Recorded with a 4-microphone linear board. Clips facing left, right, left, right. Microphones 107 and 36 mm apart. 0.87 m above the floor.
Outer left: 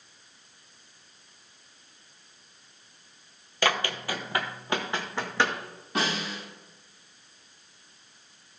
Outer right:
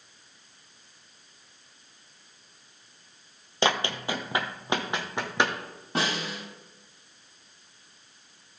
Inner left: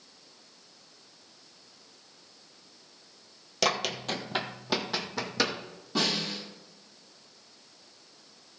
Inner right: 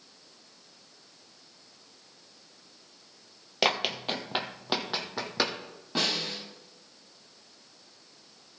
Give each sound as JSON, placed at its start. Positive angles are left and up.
{"t": 3.6, "sound": "running footsteps", "side_deg": -25, "distance_m": 1.1}
{"t": 6.0, "sound": "a snare drum", "side_deg": -30, "distance_m": 5.5}